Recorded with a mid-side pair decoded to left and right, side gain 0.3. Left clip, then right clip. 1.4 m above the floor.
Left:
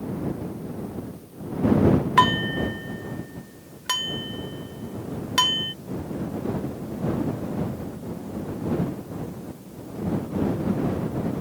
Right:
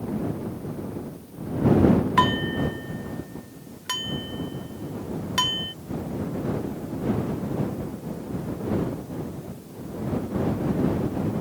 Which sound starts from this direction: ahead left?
Dishes clattering, at 2.2 s.